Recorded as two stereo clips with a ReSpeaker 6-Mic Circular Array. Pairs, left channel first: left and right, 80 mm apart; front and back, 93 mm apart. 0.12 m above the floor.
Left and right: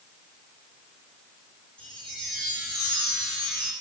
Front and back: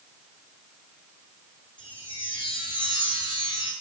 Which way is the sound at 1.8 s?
15° left.